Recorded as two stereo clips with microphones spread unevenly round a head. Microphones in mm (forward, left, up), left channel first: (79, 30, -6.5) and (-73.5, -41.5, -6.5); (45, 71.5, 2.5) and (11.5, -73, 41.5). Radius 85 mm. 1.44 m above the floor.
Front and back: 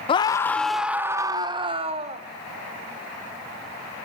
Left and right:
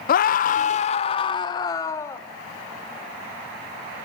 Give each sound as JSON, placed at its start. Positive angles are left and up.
{"t": 0.1, "sound": "a scream", "azimuth_deg": 85, "distance_m": 1.1}